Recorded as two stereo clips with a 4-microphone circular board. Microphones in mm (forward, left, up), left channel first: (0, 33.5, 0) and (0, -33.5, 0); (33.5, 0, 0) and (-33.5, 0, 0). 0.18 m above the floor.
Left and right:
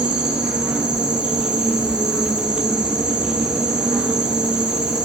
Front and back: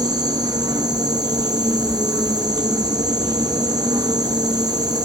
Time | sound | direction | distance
0.0 | an insect | 165° right | 1.5 m